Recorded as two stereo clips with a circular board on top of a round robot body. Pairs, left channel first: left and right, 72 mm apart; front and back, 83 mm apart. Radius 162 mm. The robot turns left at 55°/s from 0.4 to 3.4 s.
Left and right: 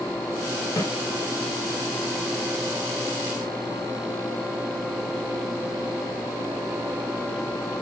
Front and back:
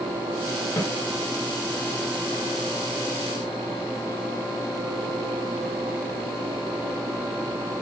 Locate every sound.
0.8 s a snare drum: 55° left, 1.9 m; by 0.9 s 45° left, 1.9 m